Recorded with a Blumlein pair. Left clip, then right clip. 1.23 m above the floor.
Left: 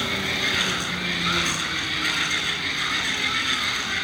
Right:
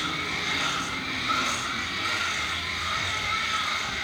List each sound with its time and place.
0.0 s a machine running: 35° left, 4 m